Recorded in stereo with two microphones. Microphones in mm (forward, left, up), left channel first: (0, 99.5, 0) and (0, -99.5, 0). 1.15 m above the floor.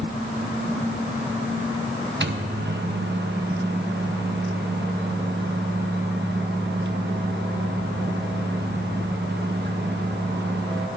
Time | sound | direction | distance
2.2 | a microwave | 60° right (ahead or behind) | 0.6 m